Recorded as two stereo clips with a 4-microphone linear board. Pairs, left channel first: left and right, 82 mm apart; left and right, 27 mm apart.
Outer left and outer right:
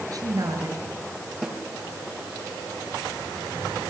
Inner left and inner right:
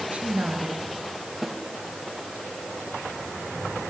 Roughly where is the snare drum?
Centre.